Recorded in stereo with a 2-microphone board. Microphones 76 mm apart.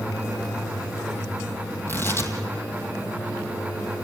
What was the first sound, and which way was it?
Tearing paper, 30° left (ahead or behind).